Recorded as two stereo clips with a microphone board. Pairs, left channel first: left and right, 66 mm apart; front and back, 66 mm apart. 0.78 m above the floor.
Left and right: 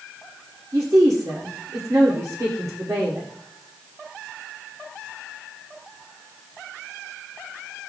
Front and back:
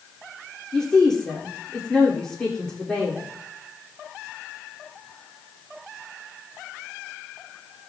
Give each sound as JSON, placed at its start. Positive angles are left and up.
{"t": 0.7, "sound": "a woman speaking", "azimuth_deg": -80, "distance_m": 2.0}